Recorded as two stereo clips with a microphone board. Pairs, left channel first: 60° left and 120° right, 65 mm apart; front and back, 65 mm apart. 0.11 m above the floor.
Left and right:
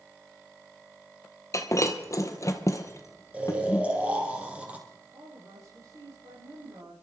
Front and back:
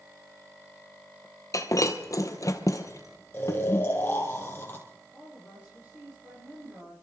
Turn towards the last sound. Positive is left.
turn(degrees=-115)